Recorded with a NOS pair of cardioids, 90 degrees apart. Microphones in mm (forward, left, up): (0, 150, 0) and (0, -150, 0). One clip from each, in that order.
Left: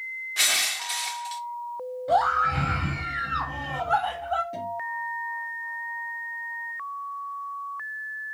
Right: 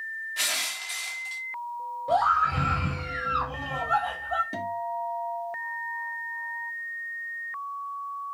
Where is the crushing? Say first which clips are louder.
Left 6 dB; 25° left, 1.5 m.